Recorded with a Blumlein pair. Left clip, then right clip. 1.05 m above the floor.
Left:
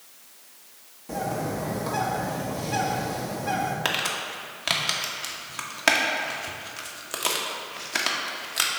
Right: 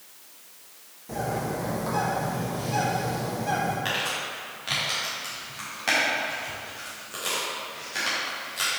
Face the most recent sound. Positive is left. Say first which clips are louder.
# left 1 dB
turn(degrees=30)